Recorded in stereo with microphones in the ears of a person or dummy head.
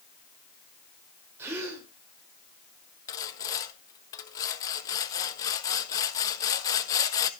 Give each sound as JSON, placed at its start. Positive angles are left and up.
{"t": 1.4, "sound": "a gasp", "side_deg": -15, "distance_m": 3.0}
{"t": 3.1, "sound": "sawing", "side_deg": 20, "distance_m": 0.6}